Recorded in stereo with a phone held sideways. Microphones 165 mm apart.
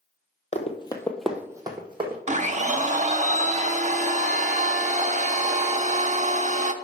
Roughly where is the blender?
Right.